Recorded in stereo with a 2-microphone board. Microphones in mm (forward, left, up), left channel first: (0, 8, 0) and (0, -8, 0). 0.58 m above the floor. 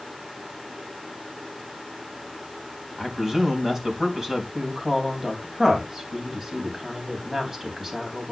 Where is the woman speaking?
25° right (ahead or behind), 4 m.